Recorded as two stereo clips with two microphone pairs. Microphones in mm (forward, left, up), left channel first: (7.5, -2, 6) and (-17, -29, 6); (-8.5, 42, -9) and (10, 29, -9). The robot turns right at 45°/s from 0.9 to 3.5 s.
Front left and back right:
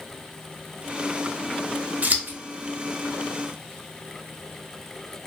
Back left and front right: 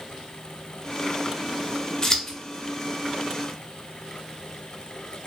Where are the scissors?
165° right, 0.5 m; by 2.4 s 150° right, 0.5 m.